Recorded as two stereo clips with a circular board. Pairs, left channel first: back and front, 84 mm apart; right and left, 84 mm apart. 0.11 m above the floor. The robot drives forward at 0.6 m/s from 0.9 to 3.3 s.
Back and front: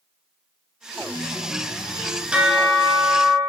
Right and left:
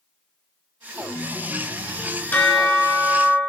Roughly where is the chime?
Ahead.